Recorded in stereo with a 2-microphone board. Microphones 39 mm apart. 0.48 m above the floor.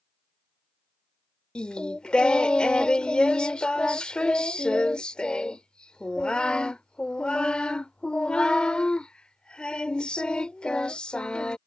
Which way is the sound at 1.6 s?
25° left (ahead or behind).